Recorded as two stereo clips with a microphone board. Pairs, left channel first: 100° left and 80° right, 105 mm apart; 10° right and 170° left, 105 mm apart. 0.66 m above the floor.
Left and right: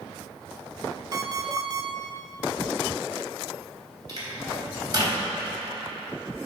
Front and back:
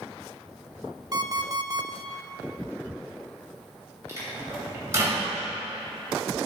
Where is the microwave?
125° right, 3 m.